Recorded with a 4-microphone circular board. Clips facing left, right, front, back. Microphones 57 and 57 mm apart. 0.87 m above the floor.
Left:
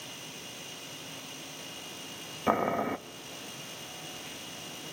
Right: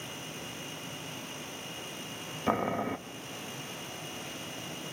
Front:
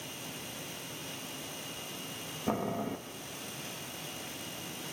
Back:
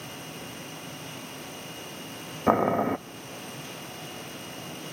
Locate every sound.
2.5 s boiling: 170° left, 0.5 m